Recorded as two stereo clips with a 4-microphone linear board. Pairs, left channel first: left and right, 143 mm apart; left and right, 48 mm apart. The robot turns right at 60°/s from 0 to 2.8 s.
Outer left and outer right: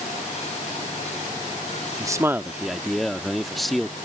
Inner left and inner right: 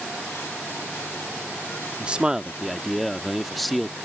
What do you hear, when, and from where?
2.0 s a man speaking: 45° right; by 4.0 s straight ahead